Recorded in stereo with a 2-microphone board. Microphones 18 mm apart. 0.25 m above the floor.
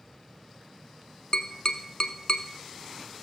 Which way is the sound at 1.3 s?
45° left (ahead or behind).